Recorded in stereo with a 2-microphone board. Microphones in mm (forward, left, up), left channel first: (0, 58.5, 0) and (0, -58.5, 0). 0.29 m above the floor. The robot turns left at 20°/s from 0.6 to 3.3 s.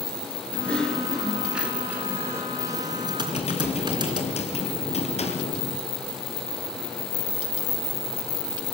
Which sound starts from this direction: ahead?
Typing on a keyboard, at 0.5 s.